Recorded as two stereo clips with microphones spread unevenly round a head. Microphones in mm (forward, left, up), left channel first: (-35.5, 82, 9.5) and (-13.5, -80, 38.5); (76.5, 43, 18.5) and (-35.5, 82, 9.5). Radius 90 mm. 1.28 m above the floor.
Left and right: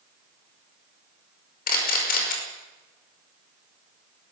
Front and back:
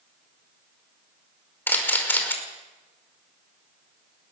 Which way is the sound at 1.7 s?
55° left.